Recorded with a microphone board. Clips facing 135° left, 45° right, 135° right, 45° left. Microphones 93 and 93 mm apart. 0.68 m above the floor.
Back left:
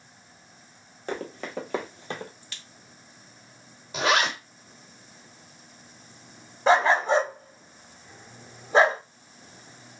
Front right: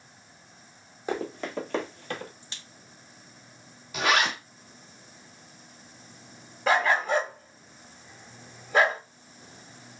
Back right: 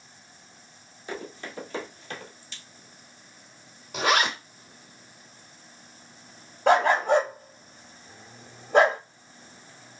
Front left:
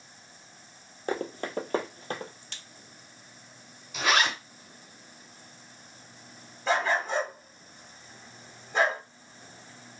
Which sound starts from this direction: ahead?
A crack, at 2.4 s.